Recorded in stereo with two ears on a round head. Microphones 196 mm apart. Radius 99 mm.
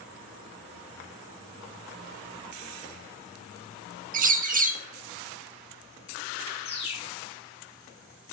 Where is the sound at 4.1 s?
35° right (ahead or behind), 0.7 m.